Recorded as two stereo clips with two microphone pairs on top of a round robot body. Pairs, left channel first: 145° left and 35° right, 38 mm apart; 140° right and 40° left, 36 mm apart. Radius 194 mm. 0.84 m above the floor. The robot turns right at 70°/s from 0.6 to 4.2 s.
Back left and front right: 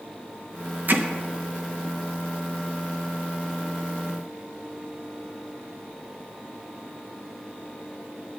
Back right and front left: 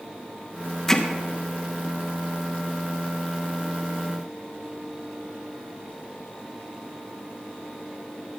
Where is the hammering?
70° right, 1.0 m; by 1.1 s 55° right, 1.0 m.